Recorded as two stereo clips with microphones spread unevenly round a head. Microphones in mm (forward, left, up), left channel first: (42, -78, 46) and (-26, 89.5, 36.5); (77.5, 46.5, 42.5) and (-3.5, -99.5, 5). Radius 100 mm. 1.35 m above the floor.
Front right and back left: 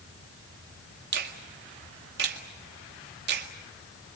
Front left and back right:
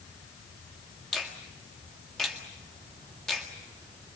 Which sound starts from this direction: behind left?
A finger snap, at 1.1 s.